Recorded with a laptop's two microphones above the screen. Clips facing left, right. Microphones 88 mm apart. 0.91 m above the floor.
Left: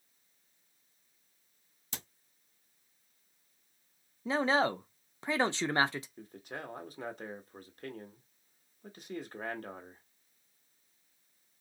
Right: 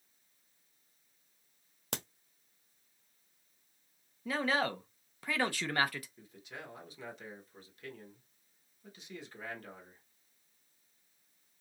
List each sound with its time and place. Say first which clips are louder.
1.9 s a crack: right 7 dB; 65° right (ahead or behind), 0.7 m
4.2 s a man speaking: left 4 dB; 25° left (ahead or behind), 0.5 m
6.2 s a man speaking: left 5 dB; 45° left (ahead or behind), 1.2 m